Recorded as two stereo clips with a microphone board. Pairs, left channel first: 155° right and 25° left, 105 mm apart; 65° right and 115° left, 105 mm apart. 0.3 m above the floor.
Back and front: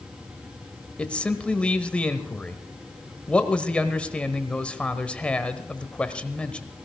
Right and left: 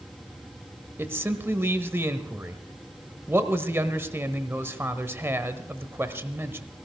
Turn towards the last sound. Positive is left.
turn(degrees=140)